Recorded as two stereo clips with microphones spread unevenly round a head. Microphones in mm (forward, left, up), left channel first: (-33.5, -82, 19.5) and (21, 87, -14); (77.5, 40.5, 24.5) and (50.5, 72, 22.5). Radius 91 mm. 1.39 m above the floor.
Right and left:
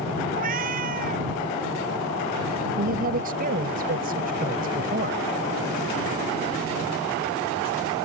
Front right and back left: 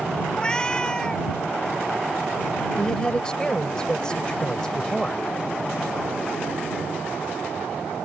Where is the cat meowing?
20° left.